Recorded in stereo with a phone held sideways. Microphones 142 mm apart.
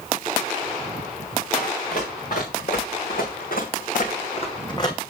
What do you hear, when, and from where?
1.5 s running footsteps: 60° left (ahead or behind), 5 m; by 5.0 s 20° left (ahead or behind), 2 m